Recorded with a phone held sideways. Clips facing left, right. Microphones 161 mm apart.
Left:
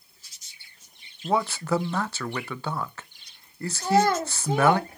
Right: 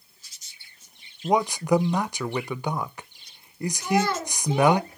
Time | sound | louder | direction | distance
1.2 | a man speaking | right 3 dB | 15° right (ahead or behind) | 0.6 m
3.8 | a child speaking | left 3 dB | 50° left (ahead or behind) | 1.8 m